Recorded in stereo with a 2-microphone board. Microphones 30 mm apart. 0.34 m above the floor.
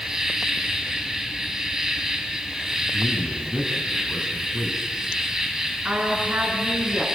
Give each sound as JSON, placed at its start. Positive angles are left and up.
{"t": 0.0, "sound": "an insect", "side_deg": -15, "distance_m": 3.0}
{"t": 2.9, "sound": "a man speaking", "side_deg": -30, "distance_m": 3.0}
{"t": 5.8, "sound": "a woman speaking", "side_deg": -60, "distance_m": 5.5}